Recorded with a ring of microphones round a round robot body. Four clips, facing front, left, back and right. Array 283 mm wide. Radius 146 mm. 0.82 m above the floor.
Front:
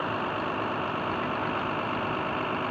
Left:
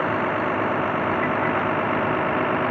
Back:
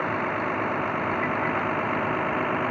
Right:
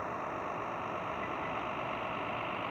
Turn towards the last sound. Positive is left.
turn(degrees=105)